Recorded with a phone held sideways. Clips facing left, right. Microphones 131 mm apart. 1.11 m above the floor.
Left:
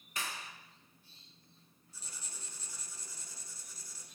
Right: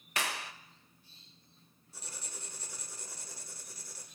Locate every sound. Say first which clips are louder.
0.2 s a clap: right 6 dB; 75° right (ahead or behind), 0.7 m
1.9 s writing: right 5 dB; 65° right (ahead or behind), 1.5 m